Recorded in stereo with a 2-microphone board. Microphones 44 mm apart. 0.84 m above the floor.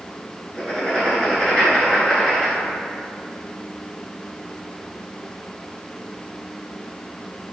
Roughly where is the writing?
Centre.